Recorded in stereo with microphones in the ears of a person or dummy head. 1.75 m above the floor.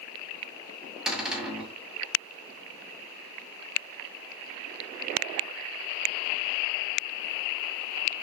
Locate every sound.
1.1 s a cupboard door: 5° right (ahead or behind), 2 m